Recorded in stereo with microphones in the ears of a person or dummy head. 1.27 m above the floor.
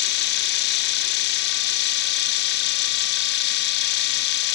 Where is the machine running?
55° left (ahead or behind), 1.4 m.